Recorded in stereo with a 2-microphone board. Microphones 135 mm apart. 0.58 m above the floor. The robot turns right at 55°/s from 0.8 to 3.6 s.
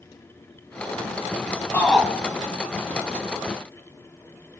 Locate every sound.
1.7 s a shout: 15° left (ahead or behind), 3 m; by 2.1 s centre (ahead or behind), 3 m